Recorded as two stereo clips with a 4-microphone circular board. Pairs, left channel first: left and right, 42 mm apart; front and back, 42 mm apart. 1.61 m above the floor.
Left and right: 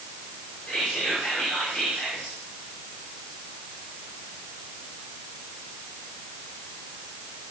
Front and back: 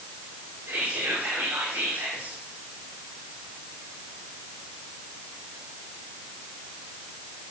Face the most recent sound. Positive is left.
turn(degrees=170)